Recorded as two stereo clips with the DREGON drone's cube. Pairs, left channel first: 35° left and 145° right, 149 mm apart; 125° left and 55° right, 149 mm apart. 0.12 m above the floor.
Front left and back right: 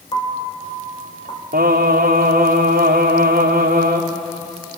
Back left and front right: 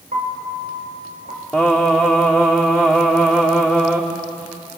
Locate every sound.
0.1 s a piano: 25° right, 4.5 m
1.5 s singing: 145° right, 3.5 m